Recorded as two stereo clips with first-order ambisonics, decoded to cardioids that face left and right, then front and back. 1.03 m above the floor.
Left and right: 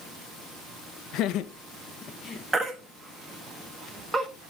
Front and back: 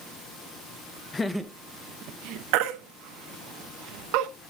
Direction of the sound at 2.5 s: 175° right.